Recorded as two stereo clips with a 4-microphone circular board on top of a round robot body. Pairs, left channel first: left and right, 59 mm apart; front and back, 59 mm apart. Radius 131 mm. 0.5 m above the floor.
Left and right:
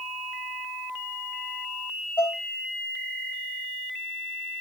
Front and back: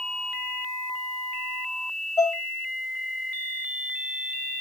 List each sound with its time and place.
2.2 s dishes clattering: 40° left, 2 m